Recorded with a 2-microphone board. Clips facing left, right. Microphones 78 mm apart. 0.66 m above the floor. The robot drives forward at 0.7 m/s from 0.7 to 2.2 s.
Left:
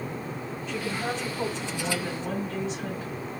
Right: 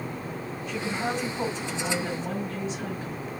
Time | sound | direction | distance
0.7 | a woman speaking | centre (ahead or behind) | 3 m